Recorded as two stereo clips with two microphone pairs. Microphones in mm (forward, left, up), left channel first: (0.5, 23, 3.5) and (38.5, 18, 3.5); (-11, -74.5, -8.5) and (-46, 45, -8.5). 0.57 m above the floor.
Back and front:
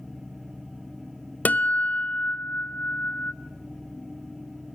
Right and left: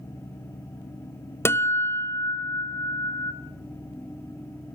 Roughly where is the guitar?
Behind right.